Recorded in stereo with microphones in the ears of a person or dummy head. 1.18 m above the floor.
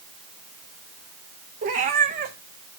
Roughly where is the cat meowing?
Right.